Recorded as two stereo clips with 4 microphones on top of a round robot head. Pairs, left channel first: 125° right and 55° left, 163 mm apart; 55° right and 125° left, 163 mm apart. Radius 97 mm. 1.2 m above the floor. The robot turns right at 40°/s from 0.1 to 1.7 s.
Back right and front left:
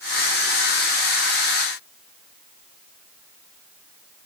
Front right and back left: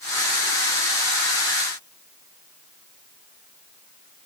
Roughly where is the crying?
I don't hear crying.